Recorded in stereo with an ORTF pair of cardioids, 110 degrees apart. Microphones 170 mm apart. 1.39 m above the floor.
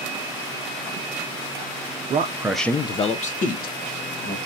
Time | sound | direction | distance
2.1 | a man speaking | 35° right | 0.7 m